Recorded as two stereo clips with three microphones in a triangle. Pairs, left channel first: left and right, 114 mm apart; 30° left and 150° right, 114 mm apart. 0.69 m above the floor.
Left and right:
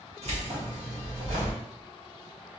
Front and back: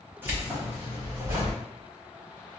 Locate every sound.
0.2 s keys jangling: 75° right, 1.2 m; by 1.6 s 80° right, 2 m